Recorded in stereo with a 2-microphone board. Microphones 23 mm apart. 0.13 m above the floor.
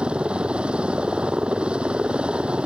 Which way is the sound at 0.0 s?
50° right (ahead or behind).